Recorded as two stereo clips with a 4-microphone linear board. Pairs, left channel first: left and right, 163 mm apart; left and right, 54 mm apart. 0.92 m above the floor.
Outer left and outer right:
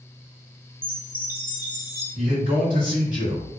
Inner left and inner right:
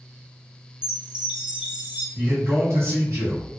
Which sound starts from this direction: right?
A man speaking, at 2.1 s.